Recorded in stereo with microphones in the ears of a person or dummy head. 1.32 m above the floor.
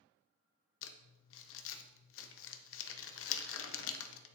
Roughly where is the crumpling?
Left.